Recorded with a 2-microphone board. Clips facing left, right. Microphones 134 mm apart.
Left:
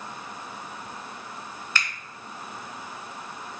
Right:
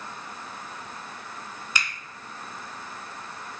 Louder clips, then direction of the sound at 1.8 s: Even; 15° right (ahead or behind).